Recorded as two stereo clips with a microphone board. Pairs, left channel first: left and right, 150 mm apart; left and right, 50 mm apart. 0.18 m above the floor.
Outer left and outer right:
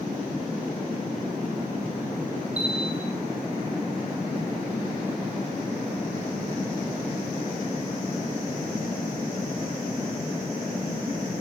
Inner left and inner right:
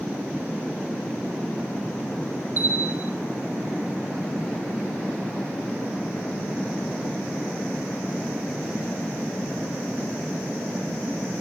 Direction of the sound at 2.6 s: 45° right (ahead or behind).